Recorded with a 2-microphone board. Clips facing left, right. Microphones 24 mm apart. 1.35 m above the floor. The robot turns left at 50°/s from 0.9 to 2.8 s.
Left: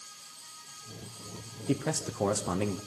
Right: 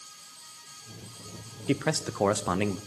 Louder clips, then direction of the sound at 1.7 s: Right 3 dB; 75° right.